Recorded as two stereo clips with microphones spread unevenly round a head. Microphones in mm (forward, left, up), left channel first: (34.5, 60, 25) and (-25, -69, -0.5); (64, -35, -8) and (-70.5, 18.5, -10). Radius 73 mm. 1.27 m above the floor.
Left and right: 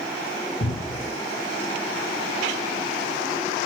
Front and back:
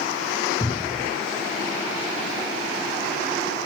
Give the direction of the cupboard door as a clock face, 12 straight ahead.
10 o'clock.